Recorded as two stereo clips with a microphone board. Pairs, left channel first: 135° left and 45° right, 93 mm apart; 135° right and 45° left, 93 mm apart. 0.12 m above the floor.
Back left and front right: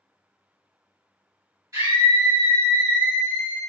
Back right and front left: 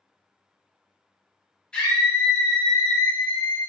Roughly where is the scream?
Ahead right.